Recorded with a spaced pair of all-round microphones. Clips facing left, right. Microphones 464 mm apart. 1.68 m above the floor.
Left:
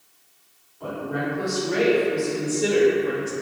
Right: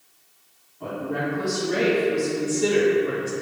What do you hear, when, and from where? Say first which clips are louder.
0.8 s a woman speaking: even; 45° right (ahead or behind), 1.5 m; by 3.3 s 15° left (ahead or behind), 0.5 m